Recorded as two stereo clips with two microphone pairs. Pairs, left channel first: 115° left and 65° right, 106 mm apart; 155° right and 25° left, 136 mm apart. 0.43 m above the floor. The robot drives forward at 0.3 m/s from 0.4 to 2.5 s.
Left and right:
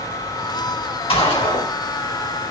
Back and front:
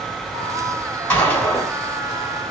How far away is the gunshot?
About 3.5 m.